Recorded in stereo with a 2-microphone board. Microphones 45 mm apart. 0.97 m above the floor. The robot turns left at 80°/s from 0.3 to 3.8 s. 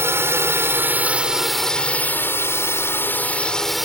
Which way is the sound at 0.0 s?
80° right.